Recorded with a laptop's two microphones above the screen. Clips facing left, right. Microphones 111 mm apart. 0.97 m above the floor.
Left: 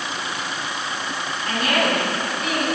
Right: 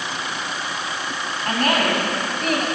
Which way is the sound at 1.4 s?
50° right (ahead or behind).